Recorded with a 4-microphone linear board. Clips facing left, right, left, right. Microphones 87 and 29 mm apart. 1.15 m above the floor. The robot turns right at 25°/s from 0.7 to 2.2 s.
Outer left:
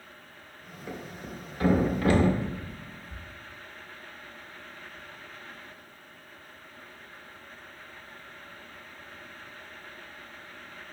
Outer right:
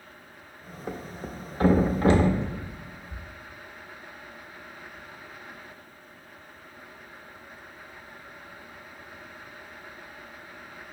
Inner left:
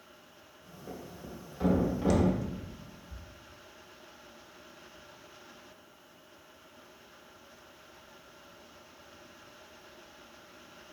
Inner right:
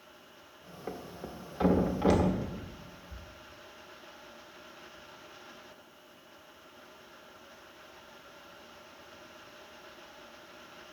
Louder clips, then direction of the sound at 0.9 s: Outer right 3 dB, inner right 3 dB; 45° right (ahead or behind).